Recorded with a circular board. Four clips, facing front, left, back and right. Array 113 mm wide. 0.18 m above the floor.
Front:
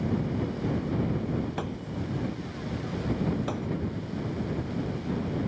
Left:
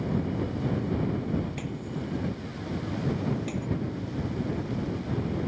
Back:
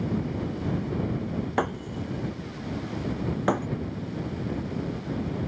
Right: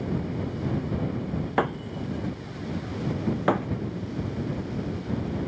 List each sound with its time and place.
1.6 s breaking glass: 125° right